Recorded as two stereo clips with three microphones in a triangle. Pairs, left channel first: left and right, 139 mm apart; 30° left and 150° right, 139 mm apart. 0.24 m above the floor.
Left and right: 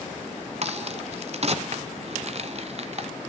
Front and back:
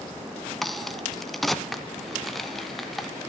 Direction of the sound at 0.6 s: 60° right.